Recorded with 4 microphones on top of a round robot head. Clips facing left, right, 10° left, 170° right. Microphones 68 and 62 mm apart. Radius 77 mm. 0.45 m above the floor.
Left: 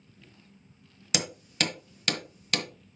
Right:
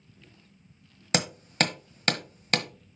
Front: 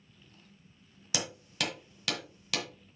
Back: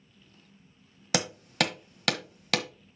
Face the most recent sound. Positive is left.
turn(degrees=-140)